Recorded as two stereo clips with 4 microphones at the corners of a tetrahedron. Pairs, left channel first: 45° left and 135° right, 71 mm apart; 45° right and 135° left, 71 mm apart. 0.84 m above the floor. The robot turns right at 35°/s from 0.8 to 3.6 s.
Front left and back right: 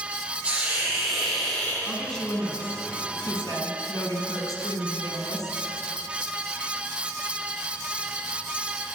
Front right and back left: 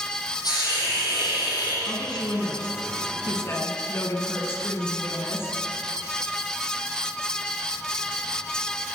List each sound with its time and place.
0.4 s a hiss: 60° right, 8.5 m; by 1.8 s 25° right, 8.5 m
1.9 s a woman speaking: 50° right, 7 m; by 5.6 s 15° left, 7 m